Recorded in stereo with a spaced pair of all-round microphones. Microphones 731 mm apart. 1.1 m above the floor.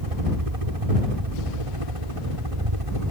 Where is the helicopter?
50° right (ahead or behind); by 3.1 s 45° right (ahead or behind).